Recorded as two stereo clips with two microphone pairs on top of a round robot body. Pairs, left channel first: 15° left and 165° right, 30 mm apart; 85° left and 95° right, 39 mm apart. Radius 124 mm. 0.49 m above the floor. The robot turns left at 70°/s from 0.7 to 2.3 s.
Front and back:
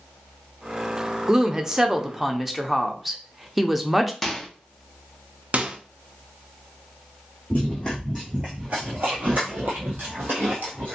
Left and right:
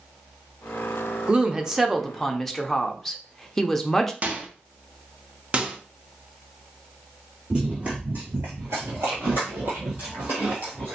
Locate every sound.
1.3 s a woman speaking: 140° right, 0.8 m; by 4.1 s 145° left, 0.8 m
4.2 s a microwave: 80° right, 0.9 m
5.5 s a microwave: 155° right, 0.7 m
7.5 s running footsteps: 30° right, 0.7 m; by 11.0 s 145° right, 1.4 m